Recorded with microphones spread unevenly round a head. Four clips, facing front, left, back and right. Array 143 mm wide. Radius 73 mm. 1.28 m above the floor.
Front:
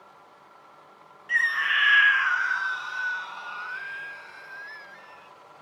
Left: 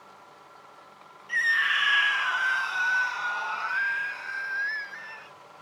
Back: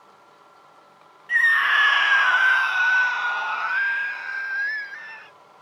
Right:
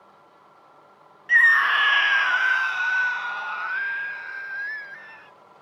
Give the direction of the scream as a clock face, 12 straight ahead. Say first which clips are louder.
Right 8 dB, back 6 dB; 3 o'clock.